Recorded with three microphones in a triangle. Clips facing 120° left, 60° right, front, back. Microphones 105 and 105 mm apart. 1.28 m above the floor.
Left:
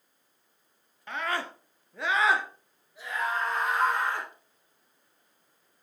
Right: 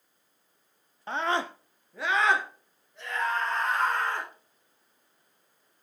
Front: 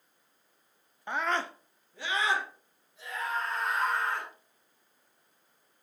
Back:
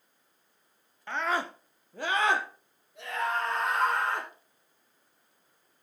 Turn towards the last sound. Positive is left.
turn(degrees=-165)